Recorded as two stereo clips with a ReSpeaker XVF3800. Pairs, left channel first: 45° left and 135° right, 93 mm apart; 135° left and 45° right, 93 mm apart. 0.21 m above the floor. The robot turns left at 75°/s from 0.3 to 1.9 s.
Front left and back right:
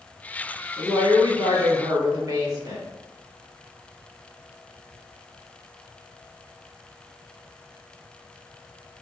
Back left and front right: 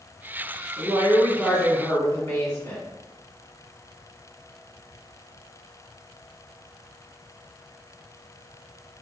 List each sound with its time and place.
0.8 s a woman speaking: 85° right, 2 m; by 2.9 s 170° right, 2 m